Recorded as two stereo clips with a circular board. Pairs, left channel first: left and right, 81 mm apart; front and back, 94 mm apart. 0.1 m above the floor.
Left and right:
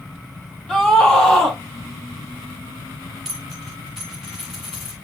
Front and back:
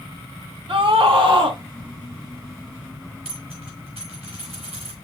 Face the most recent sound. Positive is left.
turn(degrees=180)